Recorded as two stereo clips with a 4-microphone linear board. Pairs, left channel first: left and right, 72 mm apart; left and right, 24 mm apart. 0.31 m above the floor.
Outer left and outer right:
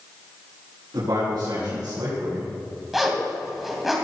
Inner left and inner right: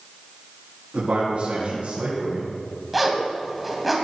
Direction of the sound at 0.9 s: 65° right (ahead or behind).